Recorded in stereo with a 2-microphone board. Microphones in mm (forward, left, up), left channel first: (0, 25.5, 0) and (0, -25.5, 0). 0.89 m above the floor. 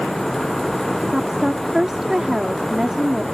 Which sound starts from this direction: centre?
A woman speaking, at 1.1 s.